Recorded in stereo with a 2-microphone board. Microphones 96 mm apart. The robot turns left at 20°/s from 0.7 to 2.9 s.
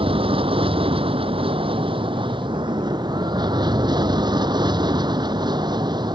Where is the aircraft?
80° right; by 6.2 s 125° right.